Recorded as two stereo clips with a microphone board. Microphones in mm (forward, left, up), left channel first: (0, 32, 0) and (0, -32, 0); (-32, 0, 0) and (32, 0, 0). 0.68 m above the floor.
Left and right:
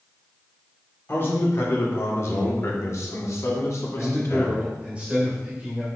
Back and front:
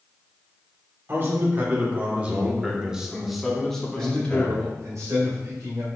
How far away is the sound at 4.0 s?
About 2 m.